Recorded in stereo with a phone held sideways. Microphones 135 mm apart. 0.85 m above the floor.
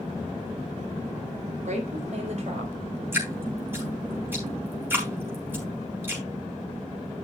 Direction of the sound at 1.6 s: 60° right (ahead or behind).